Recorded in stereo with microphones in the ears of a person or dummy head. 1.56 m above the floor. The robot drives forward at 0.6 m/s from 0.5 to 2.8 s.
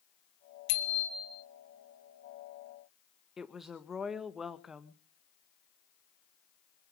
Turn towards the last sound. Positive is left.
turn(degrees=5)  # may be behind; listen again after turning